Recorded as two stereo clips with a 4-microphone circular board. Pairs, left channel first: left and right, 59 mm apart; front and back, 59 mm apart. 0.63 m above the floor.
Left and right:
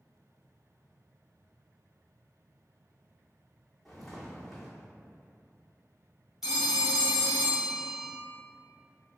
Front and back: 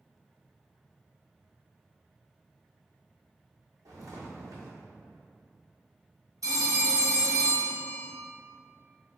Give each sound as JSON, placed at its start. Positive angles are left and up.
{"t": 3.9, "sound": "footsteps", "azimuth_deg": 180, "distance_m": 1.3}
{"t": 6.4, "sound": "a phone ringing", "azimuth_deg": -175, "distance_m": 1.0}